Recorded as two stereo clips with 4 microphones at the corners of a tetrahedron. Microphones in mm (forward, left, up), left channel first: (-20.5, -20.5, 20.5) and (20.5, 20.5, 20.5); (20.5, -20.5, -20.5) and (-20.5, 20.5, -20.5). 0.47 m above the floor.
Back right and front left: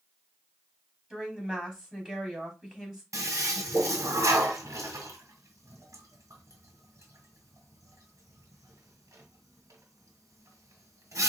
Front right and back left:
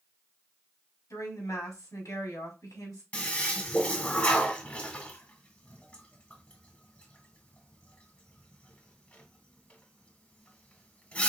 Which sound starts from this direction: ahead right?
A woman speaking, at 1.1 s.